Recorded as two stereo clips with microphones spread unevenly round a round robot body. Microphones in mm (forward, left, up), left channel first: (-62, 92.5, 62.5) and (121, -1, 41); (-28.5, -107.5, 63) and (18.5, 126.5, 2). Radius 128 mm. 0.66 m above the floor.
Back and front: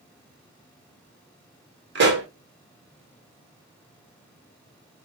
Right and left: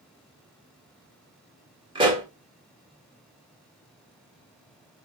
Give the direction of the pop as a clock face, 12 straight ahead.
12 o'clock.